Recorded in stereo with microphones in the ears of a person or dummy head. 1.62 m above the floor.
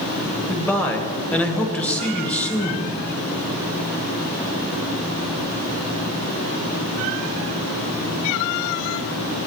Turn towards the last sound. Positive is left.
turn(degrees=5)  # may be behind; listen again after turning